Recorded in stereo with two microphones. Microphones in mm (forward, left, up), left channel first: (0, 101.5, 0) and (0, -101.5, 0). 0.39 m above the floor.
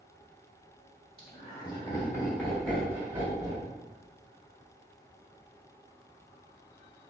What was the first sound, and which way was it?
Laughter, 30° left (ahead or behind).